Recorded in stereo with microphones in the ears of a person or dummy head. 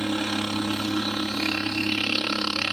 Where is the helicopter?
Centre (ahead or behind).